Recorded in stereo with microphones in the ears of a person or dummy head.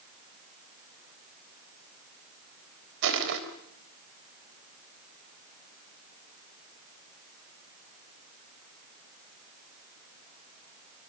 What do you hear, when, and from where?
3.0 s crushing: 70° right (ahead or behind), 3 m